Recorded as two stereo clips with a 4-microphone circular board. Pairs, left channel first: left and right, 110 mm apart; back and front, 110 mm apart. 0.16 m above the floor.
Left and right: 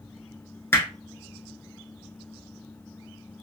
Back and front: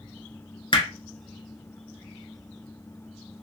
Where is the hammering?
155° left, 1.0 m.